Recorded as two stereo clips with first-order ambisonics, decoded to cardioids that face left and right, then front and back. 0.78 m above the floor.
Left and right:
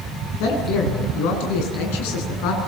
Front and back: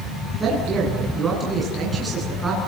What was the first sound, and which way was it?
A man speaking, 100° left.